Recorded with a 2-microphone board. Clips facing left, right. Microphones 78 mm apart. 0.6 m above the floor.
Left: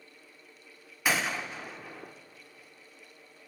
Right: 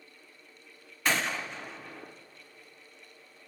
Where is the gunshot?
5° left (ahead or behind), 0.7 m.